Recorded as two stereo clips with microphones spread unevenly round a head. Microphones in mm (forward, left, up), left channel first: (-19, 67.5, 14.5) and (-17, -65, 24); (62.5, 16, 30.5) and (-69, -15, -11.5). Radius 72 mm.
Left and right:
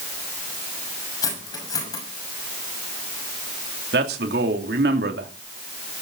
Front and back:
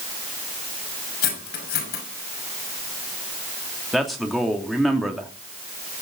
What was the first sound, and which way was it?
Cutlery clinking, 25° left.